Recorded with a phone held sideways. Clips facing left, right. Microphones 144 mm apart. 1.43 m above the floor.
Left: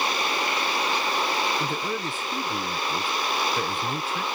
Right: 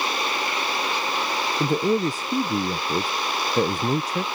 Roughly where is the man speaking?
Right.